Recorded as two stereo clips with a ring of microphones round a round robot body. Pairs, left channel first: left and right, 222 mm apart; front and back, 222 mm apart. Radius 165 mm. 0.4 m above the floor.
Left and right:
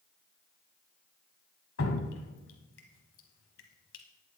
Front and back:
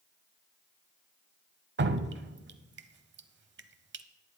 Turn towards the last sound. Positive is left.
turn(degrees=140)